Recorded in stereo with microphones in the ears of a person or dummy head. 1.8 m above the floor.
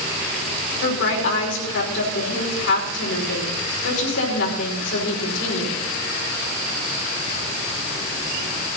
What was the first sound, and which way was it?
A woman speaking, 75° left (ahead or behind).